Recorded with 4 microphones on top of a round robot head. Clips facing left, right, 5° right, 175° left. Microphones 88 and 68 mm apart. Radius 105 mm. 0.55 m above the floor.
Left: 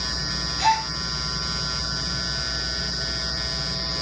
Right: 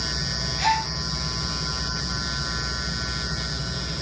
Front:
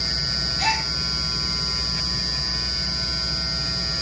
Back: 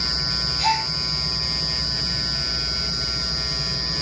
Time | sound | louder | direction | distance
0.6 | a gasp | left 2 dB, back 3 dB | 20° left | 9.5 m